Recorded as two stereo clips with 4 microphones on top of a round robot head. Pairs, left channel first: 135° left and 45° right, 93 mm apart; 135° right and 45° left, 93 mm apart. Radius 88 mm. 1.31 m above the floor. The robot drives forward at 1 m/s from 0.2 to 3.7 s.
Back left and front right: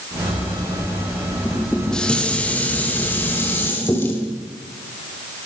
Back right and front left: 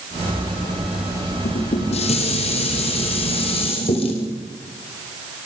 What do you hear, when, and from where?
1.4 s dishes clattering: 135° right, 2.5 m; by 4.2 s 155° right, 4.5 m